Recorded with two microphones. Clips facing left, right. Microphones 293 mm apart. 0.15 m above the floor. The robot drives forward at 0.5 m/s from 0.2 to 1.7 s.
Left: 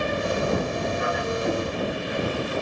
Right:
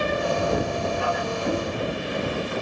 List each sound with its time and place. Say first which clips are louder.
1.4 s knocking: right 1 dB; 5° left (ahead or behind), 6 m